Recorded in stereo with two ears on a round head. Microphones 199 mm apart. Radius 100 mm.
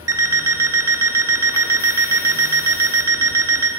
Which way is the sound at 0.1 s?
15° right (ahead or behind).